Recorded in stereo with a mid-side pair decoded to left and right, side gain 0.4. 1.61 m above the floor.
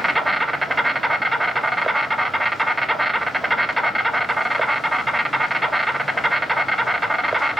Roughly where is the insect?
Ahead.